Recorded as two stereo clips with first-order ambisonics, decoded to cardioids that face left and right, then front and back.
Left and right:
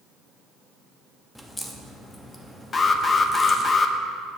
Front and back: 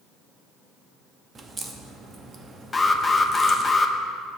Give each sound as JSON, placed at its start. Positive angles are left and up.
{"t": 1.4, "sound": "a crack", "azimuth_deg": 165, "distance_m": 0.8}
{"t": 2.7, "sound": "an alarm", "azimuth_deg": 60, "distance_m": 0.6}